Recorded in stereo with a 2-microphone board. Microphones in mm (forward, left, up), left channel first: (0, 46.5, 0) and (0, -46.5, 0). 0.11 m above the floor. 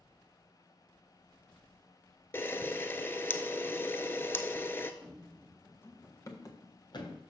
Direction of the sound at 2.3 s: 25° left (ahead or behind).